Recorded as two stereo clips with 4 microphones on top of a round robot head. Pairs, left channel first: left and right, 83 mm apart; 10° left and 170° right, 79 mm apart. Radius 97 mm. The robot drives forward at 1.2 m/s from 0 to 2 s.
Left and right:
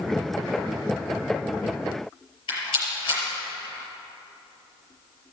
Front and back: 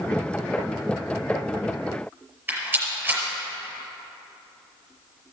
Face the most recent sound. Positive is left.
turn(degrees=125)